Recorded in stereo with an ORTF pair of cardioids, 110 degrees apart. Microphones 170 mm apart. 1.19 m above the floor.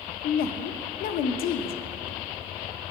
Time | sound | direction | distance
0.2 | a woman speaking | 65° left | 0.9 m